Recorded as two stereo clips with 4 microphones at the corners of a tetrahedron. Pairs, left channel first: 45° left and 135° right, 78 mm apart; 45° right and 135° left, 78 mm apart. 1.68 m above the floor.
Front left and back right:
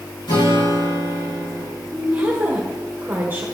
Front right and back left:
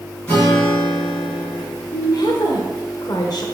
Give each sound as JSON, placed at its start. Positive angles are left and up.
{"t": 0.3, "sound": "a guitar", "azimuth_deg": 30, "distance_m": 4.0}
{"t": 1.9, "sound": "a woman speaking", "azimuth_deg": -75, "distance_m": 1.1}